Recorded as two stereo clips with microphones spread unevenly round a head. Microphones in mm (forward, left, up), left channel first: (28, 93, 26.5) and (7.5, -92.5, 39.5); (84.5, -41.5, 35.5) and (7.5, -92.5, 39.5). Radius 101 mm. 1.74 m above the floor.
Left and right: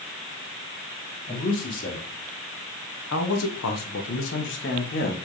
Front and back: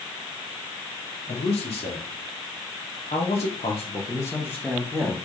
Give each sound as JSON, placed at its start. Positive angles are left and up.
{"t": 1.3, "sound": "a man speaking", "azimuth_deg": 40, "distance_m": 1.9}